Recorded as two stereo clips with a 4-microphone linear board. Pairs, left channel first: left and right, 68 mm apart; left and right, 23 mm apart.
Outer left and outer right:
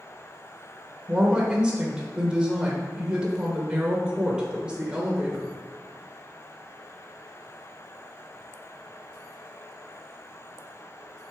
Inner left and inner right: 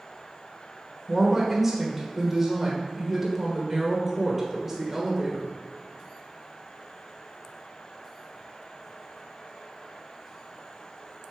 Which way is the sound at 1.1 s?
15° right (ahead or behind).